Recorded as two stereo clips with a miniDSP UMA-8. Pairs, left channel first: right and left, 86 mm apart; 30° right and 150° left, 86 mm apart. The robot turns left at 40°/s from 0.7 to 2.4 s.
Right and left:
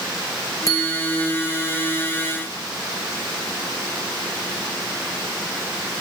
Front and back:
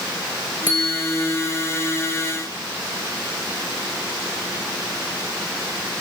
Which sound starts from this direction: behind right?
A bicycle bell, at 0.7 s.